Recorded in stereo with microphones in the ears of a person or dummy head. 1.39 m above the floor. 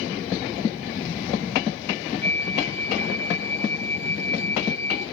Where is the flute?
15° left (ahead or behind), 4 m.